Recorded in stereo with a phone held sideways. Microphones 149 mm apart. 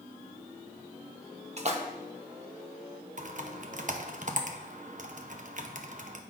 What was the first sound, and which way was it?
A splash, 45° right (ahead or behind).